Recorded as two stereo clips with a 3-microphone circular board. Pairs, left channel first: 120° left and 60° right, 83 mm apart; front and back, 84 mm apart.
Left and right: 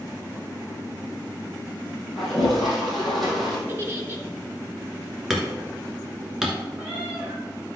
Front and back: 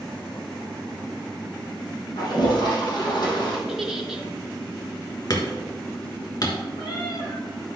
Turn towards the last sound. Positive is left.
turn(degrees=20)